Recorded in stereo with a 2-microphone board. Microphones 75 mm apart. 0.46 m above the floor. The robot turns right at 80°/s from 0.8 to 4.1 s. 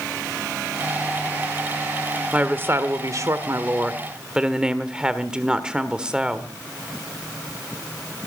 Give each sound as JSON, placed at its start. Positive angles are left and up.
{"t": 2.3, "sound": "a woman speaking", "azimuth_deg": -160, "distance_m": 1.5}